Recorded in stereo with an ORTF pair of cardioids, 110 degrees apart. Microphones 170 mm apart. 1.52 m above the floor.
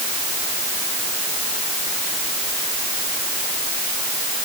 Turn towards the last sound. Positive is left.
No sound to turn to.